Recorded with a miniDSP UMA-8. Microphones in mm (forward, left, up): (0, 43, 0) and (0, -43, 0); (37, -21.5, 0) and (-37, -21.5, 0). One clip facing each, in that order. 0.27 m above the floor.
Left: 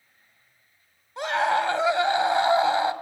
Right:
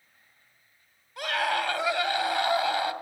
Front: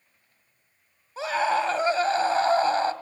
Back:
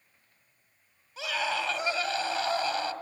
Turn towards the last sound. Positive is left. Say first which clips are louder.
# left 5 dB, front 7 dB
turn(degrees=35)